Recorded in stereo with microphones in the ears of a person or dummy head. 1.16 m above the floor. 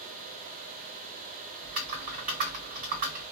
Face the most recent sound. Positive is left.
turn(degrees=-50)  # may be behind; listen again after turning